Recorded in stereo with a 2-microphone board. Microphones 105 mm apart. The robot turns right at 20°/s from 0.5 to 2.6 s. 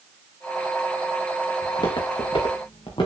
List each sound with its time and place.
1.6 s footsteps: 45° left (ahead or behind), 3.5 m; by 3.1 s 55° left (ahead or behind), 4 m